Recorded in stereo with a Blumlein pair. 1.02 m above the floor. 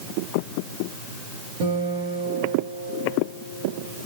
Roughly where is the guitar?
Ahead right.